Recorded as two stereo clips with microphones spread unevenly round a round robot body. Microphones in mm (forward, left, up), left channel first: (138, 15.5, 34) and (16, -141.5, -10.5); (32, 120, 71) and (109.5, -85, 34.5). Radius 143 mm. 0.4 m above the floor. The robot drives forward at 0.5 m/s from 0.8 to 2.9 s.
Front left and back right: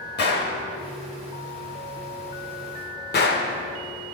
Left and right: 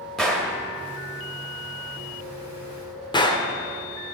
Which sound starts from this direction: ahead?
A gunshot, at 0.2 s.